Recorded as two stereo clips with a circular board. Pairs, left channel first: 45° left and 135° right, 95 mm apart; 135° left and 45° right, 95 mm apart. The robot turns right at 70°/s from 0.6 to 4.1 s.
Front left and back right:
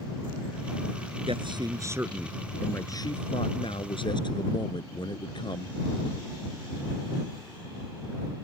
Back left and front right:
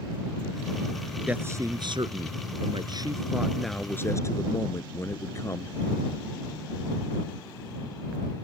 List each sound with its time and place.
1.3 s a man speaking: 120° right; by 5.8 s 75° left